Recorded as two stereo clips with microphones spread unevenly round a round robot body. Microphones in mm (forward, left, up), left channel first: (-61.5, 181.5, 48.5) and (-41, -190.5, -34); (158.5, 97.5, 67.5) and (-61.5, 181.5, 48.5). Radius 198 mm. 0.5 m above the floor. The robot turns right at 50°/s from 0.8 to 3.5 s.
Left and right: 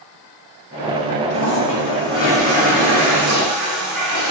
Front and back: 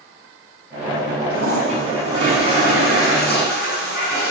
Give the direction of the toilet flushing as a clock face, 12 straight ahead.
7 o'clock.